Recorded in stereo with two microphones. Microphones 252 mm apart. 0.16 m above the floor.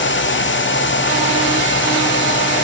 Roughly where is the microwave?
I don't hear a microwave.